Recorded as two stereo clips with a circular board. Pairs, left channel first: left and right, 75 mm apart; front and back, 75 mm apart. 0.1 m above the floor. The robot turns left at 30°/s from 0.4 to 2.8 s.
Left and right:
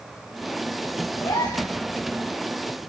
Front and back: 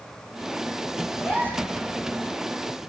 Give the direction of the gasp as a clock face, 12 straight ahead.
9 o'clock.